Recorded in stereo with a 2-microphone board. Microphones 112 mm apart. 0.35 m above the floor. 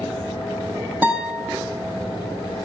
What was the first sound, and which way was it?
A guitar, 15° right (ahead or behind).